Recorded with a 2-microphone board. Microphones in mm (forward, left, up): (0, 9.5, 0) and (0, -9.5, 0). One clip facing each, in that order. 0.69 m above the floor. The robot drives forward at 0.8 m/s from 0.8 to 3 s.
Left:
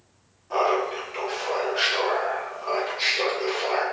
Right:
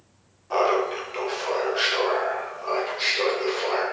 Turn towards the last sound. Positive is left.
turn(degrees=-10)  # may be behind; listen again after turning